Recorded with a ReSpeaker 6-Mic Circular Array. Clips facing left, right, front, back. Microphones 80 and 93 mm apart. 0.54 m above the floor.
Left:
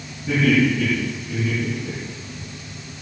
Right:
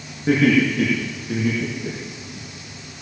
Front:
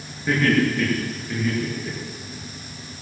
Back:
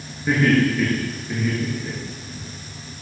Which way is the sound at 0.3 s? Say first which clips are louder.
Right 1 dB, back 2 dB; 100° right.